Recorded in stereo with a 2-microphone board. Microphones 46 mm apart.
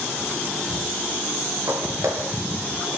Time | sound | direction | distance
1.7 | footsteps | 80° right | 5 m